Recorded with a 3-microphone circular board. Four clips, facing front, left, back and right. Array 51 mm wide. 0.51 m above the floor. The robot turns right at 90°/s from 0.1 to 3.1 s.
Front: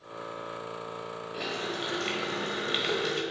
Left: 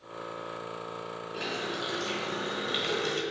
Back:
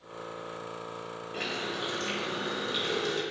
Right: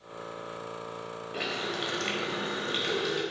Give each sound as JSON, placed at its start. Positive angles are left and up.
{"t": 1.3, "sound": "a running tap", "azimuth_deg": -120, "distance_m": 1.5}